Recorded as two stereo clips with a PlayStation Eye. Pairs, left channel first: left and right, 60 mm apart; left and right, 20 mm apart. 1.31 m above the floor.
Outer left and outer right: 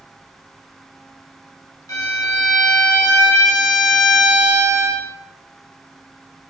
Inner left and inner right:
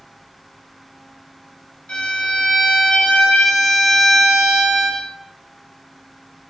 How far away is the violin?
About 4.5 m.